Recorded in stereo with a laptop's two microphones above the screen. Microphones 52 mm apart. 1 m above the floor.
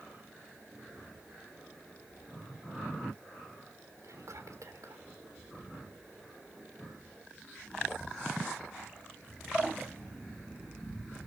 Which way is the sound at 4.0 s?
80° right.